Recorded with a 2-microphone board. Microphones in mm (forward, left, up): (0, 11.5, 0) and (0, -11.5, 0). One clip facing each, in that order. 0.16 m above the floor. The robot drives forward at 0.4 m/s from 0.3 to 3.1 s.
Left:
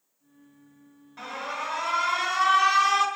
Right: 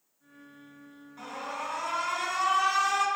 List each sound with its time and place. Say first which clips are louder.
1.2 s an alarm: left 4 dB; 35° left (ahead or behind), 2.5 m; by 3.1 s 45° left (ahead or behind), 2 m